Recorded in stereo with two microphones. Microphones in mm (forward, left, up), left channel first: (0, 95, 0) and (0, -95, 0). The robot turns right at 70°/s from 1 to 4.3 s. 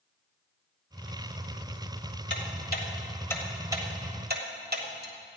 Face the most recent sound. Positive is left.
turn(degrees=-55)  # may be behind; listen again after turning